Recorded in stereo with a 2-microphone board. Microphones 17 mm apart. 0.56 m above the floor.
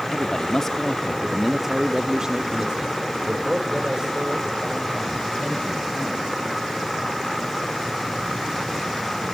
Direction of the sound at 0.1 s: 35° left (ahead or behind).